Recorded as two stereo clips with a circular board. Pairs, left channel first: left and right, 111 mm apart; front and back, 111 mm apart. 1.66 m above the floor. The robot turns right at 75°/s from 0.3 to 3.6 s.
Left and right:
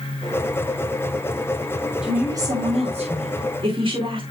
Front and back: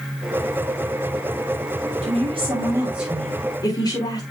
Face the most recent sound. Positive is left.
turn(degrees=-55)